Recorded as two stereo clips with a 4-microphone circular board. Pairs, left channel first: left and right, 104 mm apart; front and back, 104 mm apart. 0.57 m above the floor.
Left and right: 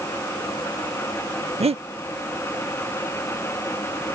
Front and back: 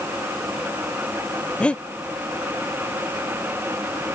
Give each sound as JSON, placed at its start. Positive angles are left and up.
{"t": 1.6, "sound": "breathing", "azimuth_deg": -80}